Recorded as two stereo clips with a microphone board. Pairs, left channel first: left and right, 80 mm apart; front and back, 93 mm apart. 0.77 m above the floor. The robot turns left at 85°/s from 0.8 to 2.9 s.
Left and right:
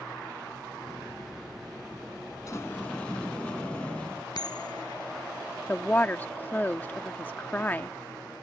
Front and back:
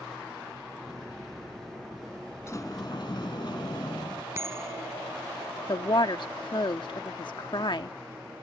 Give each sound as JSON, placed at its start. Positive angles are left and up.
{"t": 2.5, "sound": "a sliding door", "azimuth_deg": 55}
{"t": 4.3, "sound": "a bell", "azimuth_deg": 120}
{"t": 5.7, "sound": "a woman speaking", "azimuth_deg": 25}